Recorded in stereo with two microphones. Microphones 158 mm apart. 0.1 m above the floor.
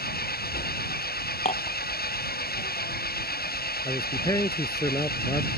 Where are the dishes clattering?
45° left (ahead or behind).